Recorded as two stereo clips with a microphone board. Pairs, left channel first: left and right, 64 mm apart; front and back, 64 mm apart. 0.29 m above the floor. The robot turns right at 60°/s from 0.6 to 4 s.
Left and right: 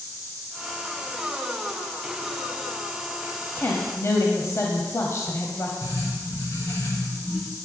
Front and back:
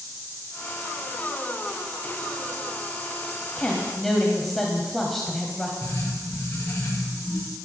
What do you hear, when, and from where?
3.5 s a woman speaking: 60° left, 1.7 m; by 5.7 s 85° left, 1.7 m
5.8 s writing: 60° left, 6 m